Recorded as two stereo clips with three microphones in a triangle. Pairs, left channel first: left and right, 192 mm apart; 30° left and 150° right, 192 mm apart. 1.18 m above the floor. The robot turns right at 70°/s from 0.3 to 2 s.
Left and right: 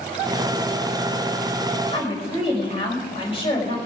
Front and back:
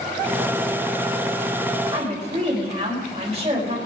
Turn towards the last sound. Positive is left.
turn(degrees=145)